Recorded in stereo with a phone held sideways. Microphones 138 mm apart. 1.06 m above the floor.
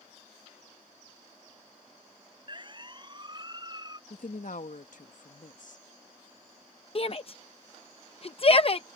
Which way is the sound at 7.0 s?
45° left (ahead or behind).